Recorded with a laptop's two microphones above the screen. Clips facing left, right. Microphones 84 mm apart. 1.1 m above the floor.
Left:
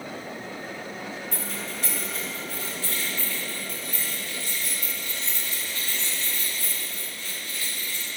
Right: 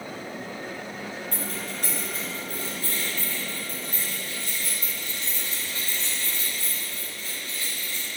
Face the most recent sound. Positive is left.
turn(degrees=-40)  # may be behind; listen again after turning